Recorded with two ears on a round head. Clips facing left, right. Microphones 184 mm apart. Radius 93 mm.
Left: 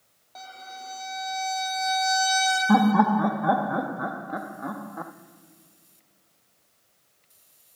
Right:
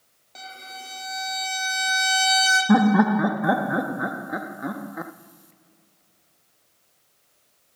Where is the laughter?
20° right (ahead or behind), 0.5 m.